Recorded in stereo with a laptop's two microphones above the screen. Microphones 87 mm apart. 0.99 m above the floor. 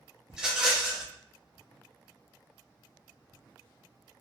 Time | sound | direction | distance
0.3 | a rattle | 10° right (ahead or behind) | 0.5 m